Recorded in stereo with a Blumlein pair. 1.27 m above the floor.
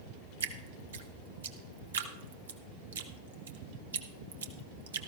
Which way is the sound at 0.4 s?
65° right.